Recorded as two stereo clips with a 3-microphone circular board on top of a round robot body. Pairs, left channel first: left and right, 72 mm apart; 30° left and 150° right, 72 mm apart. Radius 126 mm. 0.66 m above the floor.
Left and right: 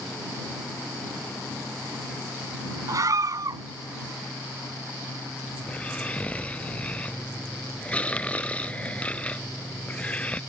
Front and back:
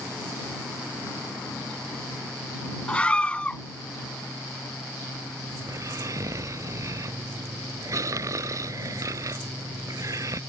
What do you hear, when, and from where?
2.9 s a scream: 45° right
5.6 s snoring: 165° left